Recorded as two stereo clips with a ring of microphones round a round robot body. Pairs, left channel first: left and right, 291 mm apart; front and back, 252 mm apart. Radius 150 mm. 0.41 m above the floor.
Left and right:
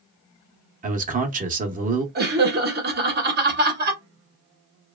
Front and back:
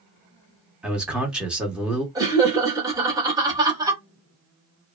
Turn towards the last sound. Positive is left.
turn(degrees=-115)